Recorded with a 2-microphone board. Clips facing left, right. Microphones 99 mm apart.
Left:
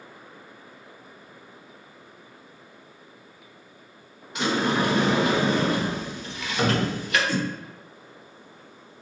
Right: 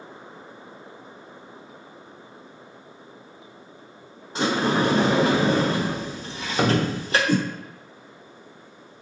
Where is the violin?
No violin in this recording.